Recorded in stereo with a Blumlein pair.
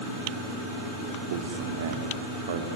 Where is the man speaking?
60° right, 3.5 m.